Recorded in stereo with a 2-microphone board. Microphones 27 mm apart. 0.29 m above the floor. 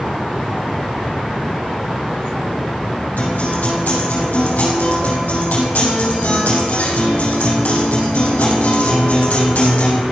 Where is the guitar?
85° left, 4.5 m.